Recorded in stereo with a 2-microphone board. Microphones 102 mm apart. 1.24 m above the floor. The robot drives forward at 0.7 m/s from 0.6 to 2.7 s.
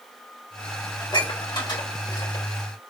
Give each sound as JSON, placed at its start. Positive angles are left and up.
{"t": 1.0, "sound": "dishes clattering", "side_deg": 45, "distance_m": 3.5}